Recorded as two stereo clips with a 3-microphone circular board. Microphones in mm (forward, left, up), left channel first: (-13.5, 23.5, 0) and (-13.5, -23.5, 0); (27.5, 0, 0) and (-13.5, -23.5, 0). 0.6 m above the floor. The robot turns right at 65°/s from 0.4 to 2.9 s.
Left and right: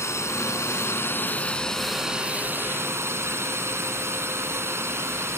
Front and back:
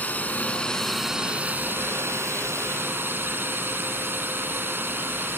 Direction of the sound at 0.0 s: 85° left.